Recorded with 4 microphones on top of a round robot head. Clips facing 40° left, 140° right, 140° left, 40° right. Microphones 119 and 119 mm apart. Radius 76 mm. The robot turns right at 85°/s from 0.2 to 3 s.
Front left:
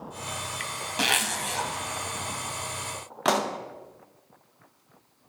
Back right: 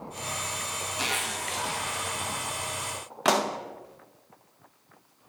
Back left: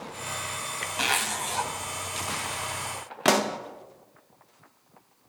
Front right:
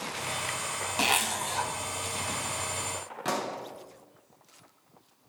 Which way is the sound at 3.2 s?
130° left.